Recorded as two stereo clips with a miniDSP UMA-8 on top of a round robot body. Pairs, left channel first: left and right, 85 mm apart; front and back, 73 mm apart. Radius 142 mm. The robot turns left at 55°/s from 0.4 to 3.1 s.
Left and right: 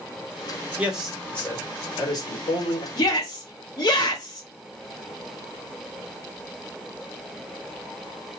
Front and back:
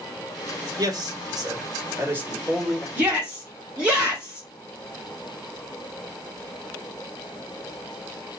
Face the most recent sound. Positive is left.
turn(degrees=110)